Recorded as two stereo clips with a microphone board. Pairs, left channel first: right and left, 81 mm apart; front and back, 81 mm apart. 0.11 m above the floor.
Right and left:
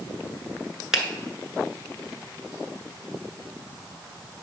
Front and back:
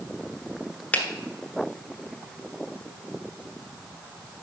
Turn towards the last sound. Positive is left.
turn(degrees=20)